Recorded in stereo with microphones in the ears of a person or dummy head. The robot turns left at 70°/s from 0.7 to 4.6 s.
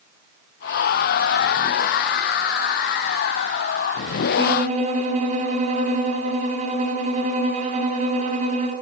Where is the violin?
20° right (ahead or behind), 7 m; by 8.7 s 35° right (ahead or behind), 7 m.